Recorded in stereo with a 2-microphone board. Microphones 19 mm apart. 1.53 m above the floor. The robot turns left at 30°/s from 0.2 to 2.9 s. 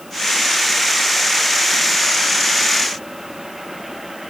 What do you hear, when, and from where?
Only background noise.